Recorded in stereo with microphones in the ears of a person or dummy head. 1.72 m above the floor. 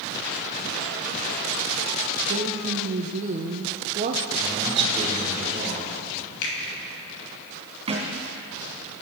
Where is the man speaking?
25° right (ahead or behind), 5.5 m.